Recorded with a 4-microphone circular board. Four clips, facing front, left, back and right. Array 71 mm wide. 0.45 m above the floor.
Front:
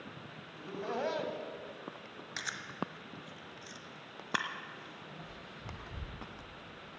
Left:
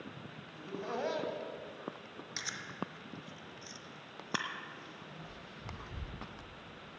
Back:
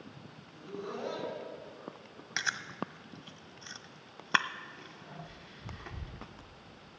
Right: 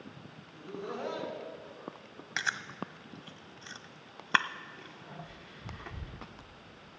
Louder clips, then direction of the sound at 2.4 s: Right 8 dB, back 5 dB; 120° right.